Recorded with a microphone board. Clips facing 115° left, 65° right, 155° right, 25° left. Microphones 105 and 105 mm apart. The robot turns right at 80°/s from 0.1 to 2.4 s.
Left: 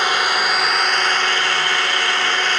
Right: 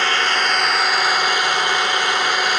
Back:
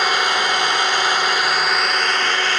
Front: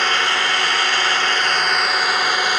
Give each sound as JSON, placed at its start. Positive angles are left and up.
{"t": 0.0, "sound": "an engine running", "azimuth_deg": 155, "distance_m": 1.1}